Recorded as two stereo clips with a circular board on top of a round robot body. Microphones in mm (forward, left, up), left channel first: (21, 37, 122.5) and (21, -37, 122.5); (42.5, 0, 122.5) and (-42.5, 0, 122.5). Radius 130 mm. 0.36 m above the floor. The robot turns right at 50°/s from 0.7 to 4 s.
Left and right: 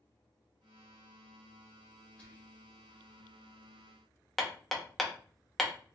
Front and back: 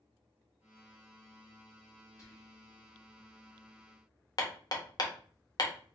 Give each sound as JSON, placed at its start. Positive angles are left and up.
{"t": 2.2, "sound": "whispering", "azimuth_deg": 30, "distance_m": 1.2}
{"t": 4.4, "sound": "hammering", "azimuth_deg": 5, "distance_m": 1.2}